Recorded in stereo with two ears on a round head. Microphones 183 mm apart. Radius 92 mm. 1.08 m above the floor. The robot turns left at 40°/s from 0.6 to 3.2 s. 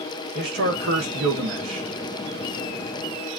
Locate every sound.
0.3 s a man speaking: 60° right, 1.1 m; by 1.9 s 110° right, 1.1 m